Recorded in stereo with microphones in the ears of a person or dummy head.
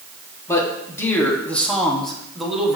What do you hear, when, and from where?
0.5 s a man speaking: 20° left (ahead or behind), 3 m; by 2.8 s centre (ahead or behind), 2.5 m